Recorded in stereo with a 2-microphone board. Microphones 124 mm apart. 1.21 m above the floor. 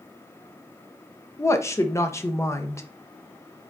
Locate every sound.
1.4 s a woman speaking: 25° left (ahead or behind), 0.6 m